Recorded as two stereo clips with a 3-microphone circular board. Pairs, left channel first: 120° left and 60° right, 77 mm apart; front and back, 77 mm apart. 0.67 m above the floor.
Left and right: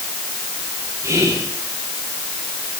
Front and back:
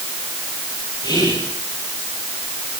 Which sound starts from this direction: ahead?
Whispering, at 1.0 s.